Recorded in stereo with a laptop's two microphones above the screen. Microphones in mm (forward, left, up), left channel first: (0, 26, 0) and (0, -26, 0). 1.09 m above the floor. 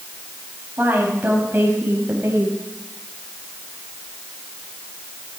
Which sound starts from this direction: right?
A woman speaking, at 0.8 s.